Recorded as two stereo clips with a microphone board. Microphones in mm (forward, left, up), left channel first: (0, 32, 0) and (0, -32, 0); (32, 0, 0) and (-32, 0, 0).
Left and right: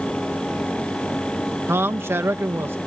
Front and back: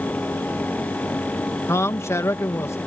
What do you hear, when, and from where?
1.7 s a man speaking: 40° right